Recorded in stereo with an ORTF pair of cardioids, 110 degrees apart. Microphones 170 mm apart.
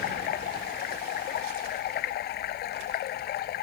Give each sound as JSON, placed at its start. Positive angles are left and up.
{"t": 0.0, "sound": "running water", "azimuth_deg": 70}